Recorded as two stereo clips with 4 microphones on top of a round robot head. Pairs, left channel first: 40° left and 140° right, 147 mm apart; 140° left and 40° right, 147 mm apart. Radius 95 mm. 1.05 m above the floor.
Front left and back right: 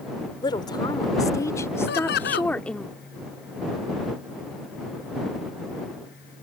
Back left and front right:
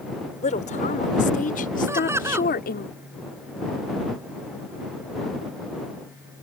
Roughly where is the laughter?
Ahead left.